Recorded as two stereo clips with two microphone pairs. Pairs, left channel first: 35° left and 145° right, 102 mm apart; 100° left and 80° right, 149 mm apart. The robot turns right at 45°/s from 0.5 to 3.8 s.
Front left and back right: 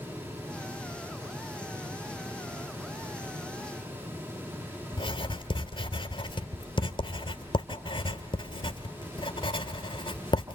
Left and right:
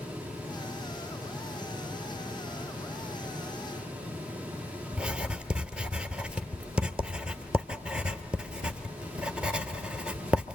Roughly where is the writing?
Ahead.